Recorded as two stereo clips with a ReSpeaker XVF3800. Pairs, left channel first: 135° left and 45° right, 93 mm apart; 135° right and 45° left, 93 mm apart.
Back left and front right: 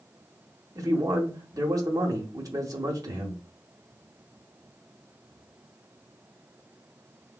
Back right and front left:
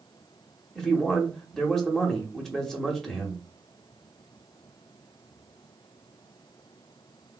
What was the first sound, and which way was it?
A man speaking, 55° right.